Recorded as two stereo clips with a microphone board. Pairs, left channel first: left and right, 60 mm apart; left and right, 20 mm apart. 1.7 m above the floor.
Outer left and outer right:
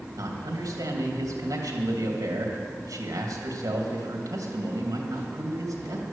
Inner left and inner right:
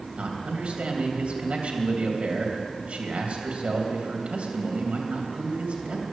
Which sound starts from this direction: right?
A man speaking, at 0.2 s.